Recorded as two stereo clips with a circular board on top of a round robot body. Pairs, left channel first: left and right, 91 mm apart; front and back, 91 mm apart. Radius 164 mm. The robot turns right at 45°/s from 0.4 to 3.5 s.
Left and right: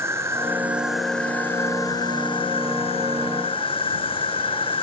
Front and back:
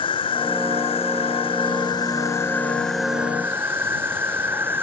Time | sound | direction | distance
0.0 | an insect | 25° right | ?